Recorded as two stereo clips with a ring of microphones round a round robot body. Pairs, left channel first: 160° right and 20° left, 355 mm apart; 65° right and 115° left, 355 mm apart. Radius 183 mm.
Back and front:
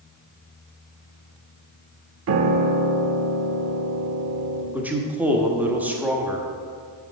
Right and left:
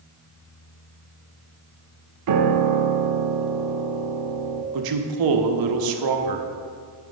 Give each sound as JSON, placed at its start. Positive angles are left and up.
{"t": 2.3, "sound": "a piano", "azimuth_deg": 75, "distance_m": 0.5}
{"t": 4.7, "sound": "a man speaking", "azimuth_deg": 110, "distance_m": 0.9}